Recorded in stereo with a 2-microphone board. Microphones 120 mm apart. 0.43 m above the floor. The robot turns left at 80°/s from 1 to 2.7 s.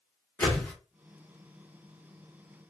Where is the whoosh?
15° left (ahead or behind), 1.3 m.